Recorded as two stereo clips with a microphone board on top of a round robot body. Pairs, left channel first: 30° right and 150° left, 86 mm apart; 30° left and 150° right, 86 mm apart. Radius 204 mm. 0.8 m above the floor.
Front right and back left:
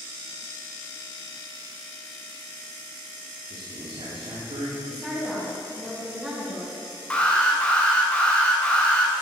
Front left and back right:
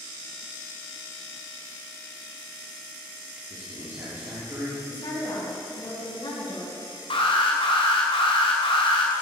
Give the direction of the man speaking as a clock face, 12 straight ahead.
7 o'clock.